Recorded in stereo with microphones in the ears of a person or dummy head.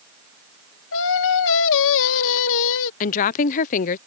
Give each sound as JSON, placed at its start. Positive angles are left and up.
{"t": 0.9, "sound": "singing", "side_deg": 70}
{"t": 3.0, "sound": "a woman speaking", "side_deg": 45}